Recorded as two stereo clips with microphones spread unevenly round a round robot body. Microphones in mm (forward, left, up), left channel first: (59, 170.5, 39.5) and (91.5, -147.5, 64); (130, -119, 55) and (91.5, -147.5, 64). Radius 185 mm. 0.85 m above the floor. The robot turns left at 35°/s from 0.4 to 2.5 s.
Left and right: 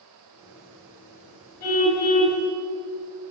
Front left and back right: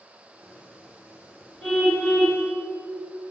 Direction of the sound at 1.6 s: 125° left.